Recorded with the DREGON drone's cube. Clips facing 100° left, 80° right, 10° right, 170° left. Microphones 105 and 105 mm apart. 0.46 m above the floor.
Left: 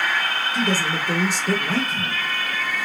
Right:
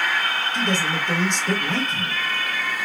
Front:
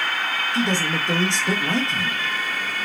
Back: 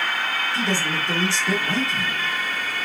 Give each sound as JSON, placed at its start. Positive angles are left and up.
{"t": 0.5, "sound": "a man speaking", "azimuth_deg": 30, "distance_m": 0.8}